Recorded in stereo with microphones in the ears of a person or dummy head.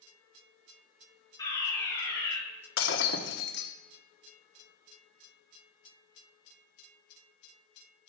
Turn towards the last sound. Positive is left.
turn(degrees=65)  # may be behind; listen again after turning